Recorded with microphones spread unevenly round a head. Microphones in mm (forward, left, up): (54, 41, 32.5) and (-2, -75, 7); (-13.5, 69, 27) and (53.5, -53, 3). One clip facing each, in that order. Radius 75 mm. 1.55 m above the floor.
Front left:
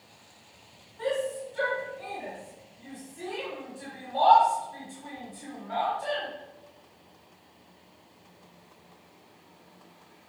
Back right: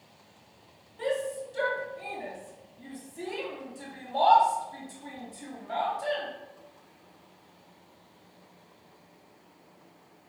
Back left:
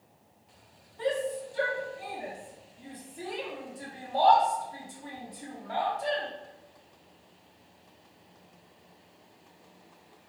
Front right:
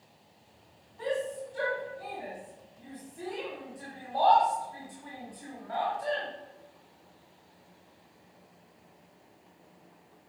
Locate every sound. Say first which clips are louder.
1.0 s a shout: front left 1 dB, back left 2 dB; 175° right, 3 m